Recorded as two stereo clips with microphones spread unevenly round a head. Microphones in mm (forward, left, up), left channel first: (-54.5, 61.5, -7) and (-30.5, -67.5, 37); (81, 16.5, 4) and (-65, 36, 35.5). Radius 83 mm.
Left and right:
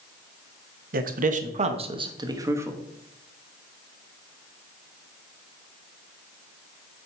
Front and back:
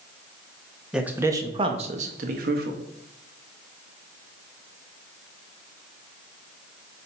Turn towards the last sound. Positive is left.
turn(degrees=-160)